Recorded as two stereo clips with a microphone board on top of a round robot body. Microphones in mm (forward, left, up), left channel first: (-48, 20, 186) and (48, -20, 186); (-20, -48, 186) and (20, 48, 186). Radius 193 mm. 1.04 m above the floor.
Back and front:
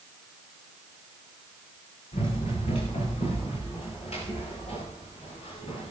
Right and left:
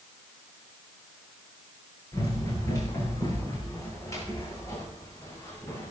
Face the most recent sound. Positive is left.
turn(degrees=180)